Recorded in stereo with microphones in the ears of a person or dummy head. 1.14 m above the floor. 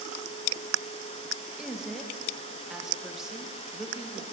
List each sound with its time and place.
1.6 s a woman speaking: 5° right (ahead or behind), 0.8 m